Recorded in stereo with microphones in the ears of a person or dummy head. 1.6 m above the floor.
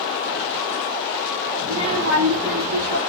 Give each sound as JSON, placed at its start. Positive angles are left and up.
{"t": 1.6, "sound": "a child speaking", "side_deg": -20, "distance_m": 0.9}